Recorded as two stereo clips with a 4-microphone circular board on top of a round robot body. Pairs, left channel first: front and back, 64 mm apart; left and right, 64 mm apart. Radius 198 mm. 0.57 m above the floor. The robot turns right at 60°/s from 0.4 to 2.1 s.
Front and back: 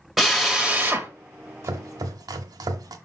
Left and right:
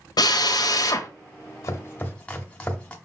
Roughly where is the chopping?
Behind left.